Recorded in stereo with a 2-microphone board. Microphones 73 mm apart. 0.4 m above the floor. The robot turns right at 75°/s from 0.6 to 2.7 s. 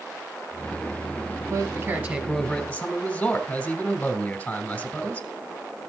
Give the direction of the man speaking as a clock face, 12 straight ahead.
2 o'clock.